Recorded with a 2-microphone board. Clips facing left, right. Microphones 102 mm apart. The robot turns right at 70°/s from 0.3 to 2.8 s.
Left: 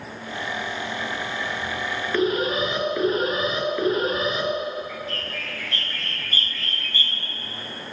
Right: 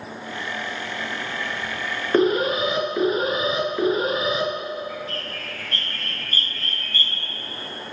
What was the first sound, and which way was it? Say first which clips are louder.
An alarm: right 4 dB; 75° right.